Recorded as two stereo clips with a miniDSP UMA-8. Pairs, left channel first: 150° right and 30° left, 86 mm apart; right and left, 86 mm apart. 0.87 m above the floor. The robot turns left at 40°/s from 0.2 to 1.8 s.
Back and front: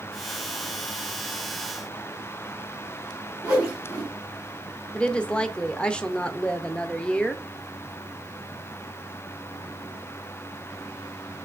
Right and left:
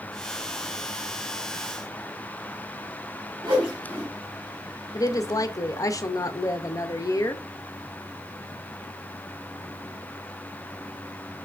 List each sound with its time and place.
3.4 s a whoosh: 105° left, 2.5 m
4.9 s a woman speaking: 75° right, 0.5 m